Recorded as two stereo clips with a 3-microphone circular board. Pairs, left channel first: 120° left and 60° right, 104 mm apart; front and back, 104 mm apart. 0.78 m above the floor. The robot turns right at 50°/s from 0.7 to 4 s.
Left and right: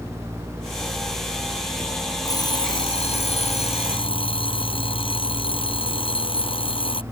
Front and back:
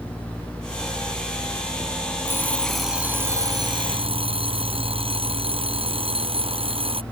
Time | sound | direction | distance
2.2 | an alarm clock | 65° left | ?